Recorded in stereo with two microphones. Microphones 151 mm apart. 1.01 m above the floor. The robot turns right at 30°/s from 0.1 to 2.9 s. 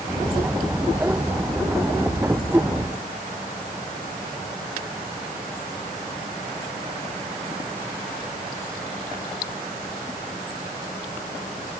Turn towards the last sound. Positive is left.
No sound to turn to.